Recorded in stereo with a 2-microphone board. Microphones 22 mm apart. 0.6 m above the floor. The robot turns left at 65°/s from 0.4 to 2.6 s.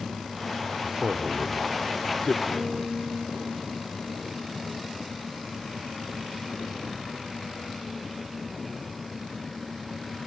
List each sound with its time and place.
0.8 s a man speaking: 50° right (ahead or behind), 1.5 m; by 2.4 s 35° left (ahead or behind), 1.5 m
2.5 s a guitar: 30° right (ahead or behind), 2.5 m; by 4.9 s 35° right (ahead or behind), 2.5 m